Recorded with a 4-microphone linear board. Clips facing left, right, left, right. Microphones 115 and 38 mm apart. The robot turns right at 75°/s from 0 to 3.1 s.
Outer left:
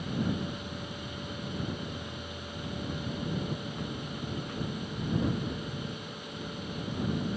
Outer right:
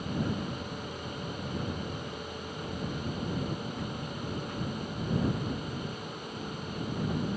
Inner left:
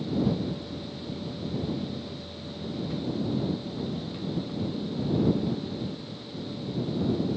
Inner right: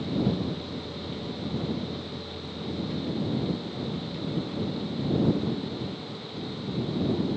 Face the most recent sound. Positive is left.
No sound to turn to.